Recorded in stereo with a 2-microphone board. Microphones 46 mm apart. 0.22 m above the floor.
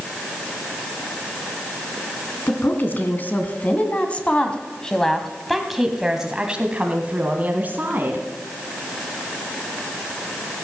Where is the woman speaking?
50° left (ahead or behind), 2.5 m; by 8.3 s 45° right (ahead or behind), 2 m.